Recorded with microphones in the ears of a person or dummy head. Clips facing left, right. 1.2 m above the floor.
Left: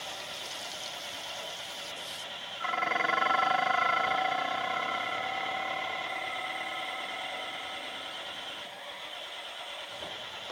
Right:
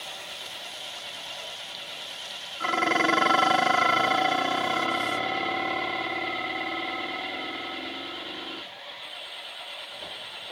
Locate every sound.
0.0 s an engine running: centre (ahead or behind)
2.6 s dishes clattering: 55° right (ahead or behind)